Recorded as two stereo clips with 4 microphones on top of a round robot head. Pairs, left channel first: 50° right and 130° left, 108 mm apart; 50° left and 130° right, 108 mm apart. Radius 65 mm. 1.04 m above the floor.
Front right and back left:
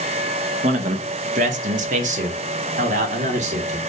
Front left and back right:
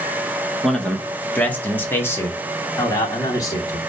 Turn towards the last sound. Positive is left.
turn(degrees=110)